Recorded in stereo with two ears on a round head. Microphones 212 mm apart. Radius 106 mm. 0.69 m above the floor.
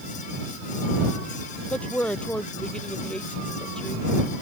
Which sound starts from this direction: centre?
A woman speaking, at 1.7 s.